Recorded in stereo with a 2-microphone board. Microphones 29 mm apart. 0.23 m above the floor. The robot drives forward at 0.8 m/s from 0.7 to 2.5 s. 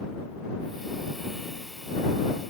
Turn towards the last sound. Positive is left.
No sound to turn to.